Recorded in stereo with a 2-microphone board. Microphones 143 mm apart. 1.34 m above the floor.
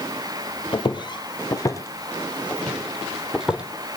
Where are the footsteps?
35° left (ahead or behind), 1.7 m; by 3.6 s 5° right (ahead or behind), 2 m.